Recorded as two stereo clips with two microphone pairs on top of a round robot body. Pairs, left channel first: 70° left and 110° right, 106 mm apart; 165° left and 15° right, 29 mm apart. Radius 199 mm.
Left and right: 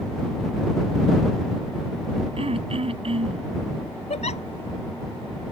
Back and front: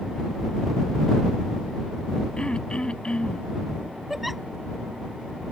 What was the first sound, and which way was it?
Throat clearing, 135° right.